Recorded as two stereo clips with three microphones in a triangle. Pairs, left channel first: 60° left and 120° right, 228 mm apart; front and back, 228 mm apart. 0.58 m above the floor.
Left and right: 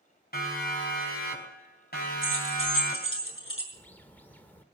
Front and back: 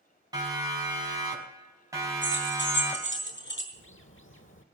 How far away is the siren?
About 5 m.